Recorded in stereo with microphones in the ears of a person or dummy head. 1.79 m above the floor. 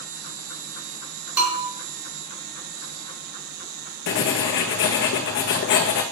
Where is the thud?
I don't hear a thud.